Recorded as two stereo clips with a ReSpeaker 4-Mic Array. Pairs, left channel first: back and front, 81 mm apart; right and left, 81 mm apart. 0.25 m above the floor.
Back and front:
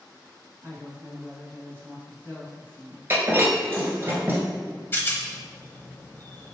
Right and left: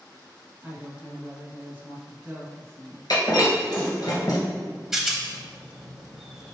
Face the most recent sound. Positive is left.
turn(degrees=170)